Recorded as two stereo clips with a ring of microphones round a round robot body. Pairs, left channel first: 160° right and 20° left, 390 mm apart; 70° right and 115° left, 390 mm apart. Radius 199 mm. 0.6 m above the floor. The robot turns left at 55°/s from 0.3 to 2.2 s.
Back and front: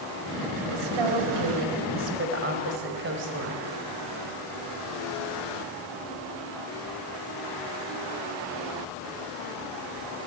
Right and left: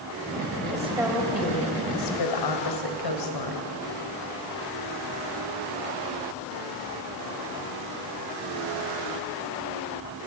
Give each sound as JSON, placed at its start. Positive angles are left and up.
{"t": 0.7, "sound": "a woman speaking", "azimuth_deg": 45, "distance_m": 3.0}